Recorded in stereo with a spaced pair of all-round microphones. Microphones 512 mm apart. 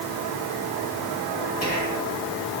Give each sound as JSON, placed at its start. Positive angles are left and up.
{"t": 1.6, "sound": "whispering", "side_deg": 30, "distance_m": 2.0}